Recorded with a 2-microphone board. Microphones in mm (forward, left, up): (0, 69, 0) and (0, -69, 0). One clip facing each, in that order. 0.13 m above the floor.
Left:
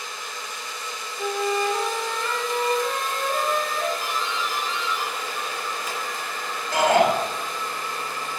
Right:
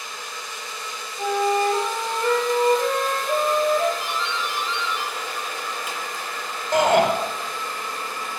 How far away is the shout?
About 2 m.